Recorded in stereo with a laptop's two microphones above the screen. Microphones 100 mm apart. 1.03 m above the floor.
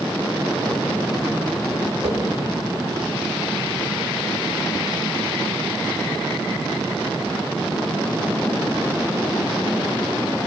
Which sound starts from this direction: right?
A whoosh, at 2.0 s.